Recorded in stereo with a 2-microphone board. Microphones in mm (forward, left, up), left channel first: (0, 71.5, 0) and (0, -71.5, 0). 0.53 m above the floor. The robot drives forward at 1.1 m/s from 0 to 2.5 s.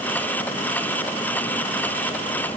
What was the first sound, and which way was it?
Only background noise.